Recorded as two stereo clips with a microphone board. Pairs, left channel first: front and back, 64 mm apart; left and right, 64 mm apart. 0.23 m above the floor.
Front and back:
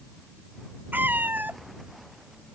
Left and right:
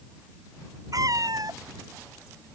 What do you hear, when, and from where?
0.9 s a cat meowing: 115° right